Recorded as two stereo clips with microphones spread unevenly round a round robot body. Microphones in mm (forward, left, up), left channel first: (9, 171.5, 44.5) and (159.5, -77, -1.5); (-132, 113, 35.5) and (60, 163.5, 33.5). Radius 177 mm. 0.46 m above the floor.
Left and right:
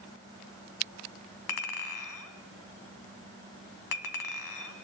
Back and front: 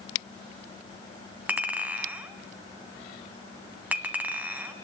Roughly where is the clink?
Left.